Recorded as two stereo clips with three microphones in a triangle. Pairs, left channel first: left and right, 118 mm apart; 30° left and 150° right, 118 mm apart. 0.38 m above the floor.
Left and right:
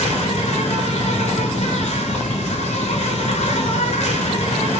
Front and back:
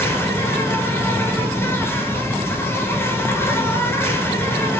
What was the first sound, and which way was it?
An insect, 100° left.